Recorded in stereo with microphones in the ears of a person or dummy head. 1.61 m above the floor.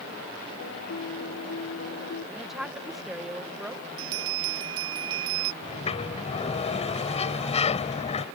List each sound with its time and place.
0.6 s a piano: 80° left
2.4 s a woman speaking: centre (ahead or behind)
4.0 s a bell: 30° right (ahead or behind)
5.6 s a sliding door: 30° left (ahead or behind)